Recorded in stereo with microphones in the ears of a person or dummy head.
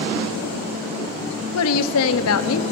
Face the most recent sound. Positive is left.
turn(degrees=75)  # may be behind; listen again after turning